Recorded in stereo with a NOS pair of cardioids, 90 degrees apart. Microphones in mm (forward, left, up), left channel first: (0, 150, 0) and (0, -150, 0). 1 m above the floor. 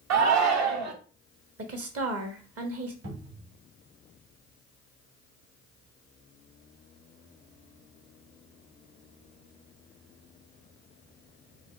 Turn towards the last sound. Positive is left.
turn(degrees=-55)